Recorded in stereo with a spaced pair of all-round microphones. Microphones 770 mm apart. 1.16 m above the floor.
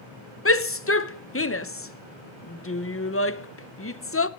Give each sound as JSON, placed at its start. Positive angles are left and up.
{"t": 0.5, "sound": "a shout", "side_deg": 20, "distance_m": 0.7}